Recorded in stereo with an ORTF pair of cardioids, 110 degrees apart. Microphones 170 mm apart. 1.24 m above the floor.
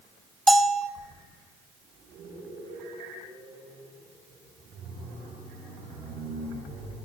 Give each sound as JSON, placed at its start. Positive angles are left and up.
{"t": 0.5, "sound": "a bell", "azimuth_deg": 0, "distance_m": 1.3}